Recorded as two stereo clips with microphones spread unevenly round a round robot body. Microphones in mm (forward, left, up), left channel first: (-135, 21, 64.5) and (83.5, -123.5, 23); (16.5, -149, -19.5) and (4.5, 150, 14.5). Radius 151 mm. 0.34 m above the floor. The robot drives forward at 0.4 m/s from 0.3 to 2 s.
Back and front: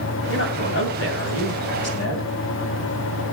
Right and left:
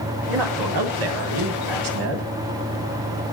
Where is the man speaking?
95° left, 3 m; by 2.3 s 110° left, 3 m.